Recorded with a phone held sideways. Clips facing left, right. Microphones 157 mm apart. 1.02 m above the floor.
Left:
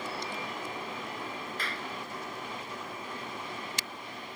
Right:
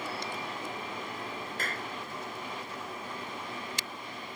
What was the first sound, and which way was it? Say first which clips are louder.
A clap: right 1 dB; 45° right (ahead or behind).